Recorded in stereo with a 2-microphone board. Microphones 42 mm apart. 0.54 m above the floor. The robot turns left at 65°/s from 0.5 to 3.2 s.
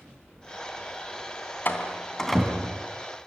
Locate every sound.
1.6 s a door slam: 45° left (ahead or behind), 3 m; by 2.9 s 30° right (ahead or behind), 3 m